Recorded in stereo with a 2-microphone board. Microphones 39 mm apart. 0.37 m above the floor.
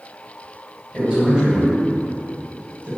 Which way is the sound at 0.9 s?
25° right (ahead or behind).